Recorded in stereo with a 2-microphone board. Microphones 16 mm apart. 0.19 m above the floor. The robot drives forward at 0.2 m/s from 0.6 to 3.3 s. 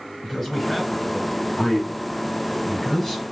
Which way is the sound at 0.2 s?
10° left (ahead or behind).